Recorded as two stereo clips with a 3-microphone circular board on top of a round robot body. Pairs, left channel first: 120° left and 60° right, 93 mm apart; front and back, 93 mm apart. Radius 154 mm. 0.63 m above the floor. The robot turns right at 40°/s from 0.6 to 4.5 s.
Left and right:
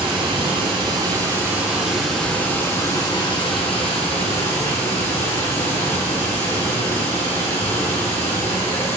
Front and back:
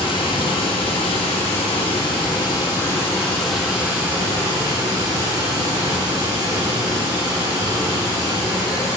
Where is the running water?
30° right, 3.5 m; by 9.0 s 125° left, 3.5 m.